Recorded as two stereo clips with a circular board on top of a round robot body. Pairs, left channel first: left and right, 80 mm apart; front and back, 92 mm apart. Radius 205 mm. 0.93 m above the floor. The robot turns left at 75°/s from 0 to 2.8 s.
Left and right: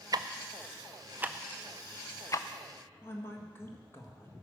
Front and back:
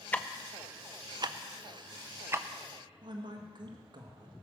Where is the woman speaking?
150° left, 1.8 m.